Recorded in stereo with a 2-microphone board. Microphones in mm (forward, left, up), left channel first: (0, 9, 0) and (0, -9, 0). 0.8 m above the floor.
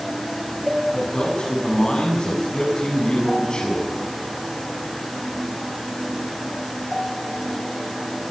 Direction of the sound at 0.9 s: 45° left (ahead or behind).